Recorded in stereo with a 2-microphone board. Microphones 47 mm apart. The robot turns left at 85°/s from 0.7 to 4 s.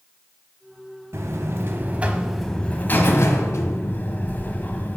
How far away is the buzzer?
About 1.1 m.